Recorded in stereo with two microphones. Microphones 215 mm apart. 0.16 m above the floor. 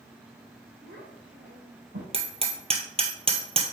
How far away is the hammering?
About 1.3 m.